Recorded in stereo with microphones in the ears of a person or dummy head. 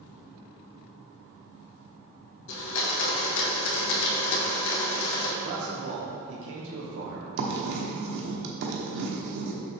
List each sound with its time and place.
2.5 s a blender: 65° left (ahead or behind), 1.5 m
5.4 s a man speaking: 70° right (ahead or behind), 1.3 m
7.4 s writing: 55° right (ahead or behind), 1.0 m